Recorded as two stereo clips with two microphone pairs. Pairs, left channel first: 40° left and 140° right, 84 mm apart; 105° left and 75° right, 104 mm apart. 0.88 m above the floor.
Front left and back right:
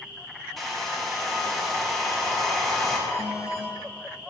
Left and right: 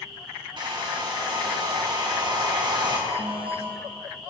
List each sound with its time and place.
0.6 s a hair dryer: 45° right, 1.4 m
3.1 s an alarm: 50° right, 2.5 m